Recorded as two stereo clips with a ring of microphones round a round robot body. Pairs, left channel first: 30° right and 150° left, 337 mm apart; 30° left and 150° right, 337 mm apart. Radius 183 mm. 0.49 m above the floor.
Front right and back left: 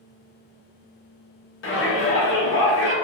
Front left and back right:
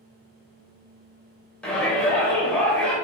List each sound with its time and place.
1.6 s a shout: 55° right, 0.9 m